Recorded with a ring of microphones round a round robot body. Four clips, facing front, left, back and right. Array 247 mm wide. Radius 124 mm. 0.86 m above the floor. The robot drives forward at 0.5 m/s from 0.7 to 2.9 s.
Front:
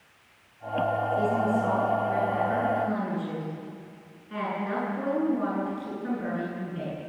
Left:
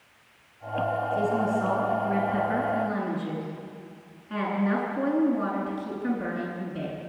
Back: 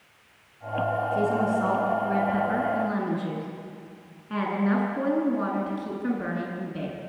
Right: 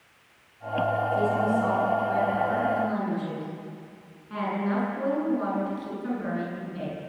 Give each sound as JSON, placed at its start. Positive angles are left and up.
{"t": 1.1, "sound": "a woman speaking", "azimuth_deg": 170, "distance_m": 8.5}